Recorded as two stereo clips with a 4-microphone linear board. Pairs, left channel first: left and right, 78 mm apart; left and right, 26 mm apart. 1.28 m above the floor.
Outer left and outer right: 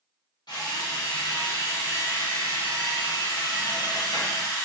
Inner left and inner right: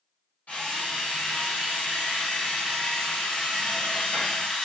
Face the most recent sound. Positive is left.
turn(degrees=60)  # may be behind; listen again after turning